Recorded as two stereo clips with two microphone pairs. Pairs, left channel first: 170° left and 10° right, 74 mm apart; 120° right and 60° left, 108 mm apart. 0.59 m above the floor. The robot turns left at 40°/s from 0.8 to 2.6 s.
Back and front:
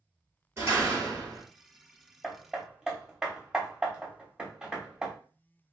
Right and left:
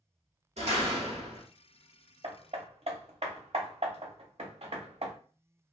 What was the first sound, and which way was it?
A door slam, 50° left.